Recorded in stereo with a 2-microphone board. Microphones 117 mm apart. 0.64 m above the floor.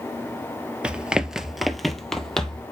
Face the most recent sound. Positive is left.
turn(degrees=5)  # may be behind; listen again after turning